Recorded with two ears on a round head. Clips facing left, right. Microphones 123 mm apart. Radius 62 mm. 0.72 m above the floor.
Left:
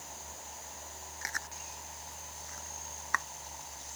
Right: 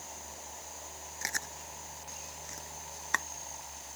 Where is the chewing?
30° right (ahead or behind).